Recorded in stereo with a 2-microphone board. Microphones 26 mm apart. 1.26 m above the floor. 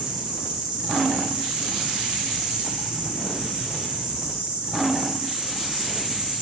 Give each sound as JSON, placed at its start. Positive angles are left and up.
{"t": 0.0, "sound": "an insect", "side_deg": -20, "distance_m": 4.5}